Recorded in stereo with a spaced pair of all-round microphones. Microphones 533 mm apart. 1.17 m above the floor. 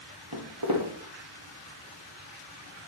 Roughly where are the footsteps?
Right.